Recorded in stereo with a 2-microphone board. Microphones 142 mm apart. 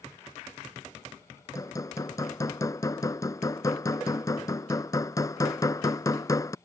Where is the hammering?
25° left (ahead or behind).